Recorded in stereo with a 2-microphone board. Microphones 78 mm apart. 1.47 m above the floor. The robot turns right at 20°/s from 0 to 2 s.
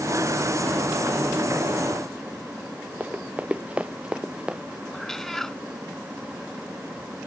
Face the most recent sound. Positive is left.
turn(degrees=5)  # may be behind; listen again after turning